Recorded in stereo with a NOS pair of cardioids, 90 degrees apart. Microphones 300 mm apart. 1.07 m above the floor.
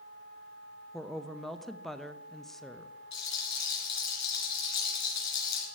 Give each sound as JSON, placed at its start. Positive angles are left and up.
{"t": 0.9, "sound": "a woman speaking", "azimuth_deg": 0, "distance_m": 0.8}
{"t": 3.1, "sound": "a rattle", "azimuth_deg": 60, "distance_m": 3.5}